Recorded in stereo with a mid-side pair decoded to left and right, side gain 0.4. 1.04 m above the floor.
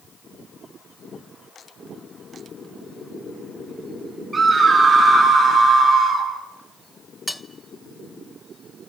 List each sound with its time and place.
4.3 s a scream: 25° right, 7.5 m; by 6.3 s 30° right, 8 m
7.3 s cutlery clinking: 10° left, 1.0 m